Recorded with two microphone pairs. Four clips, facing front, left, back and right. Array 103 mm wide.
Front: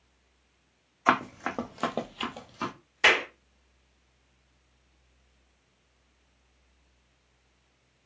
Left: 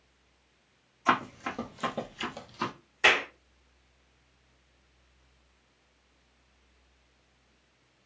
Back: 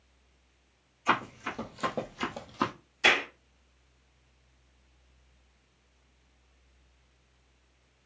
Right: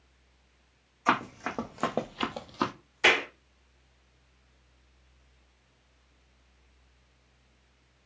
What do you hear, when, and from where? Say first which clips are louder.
1.1 s running footsteps: even, front 4 dB; 15° right, 1.3 m; by 2.7 s 130° right, 0.9 m
3.0 s a clap: even, front 2 dB; 10° right, 2 m